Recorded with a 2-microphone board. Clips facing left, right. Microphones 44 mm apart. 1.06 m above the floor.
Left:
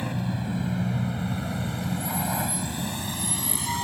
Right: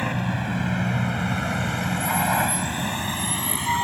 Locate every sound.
0.0 s a vehicle: 60° right (ahead or behind); by 3.8 s 40° right (ahead or behind)